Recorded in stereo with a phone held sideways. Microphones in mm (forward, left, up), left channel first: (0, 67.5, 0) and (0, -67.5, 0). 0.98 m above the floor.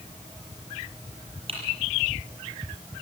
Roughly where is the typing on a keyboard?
Right.